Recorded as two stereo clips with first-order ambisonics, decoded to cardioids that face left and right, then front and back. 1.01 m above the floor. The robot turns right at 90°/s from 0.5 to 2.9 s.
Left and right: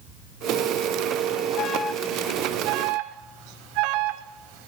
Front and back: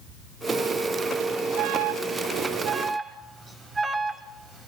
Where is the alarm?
140° left, 4.5 m; by 4.7 s 100° right, 4.5 m.